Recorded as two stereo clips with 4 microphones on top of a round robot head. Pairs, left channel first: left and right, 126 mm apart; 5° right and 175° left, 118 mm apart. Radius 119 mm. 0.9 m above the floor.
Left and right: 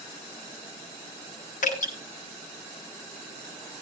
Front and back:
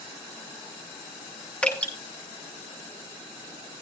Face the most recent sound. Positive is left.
turn(degrees=70)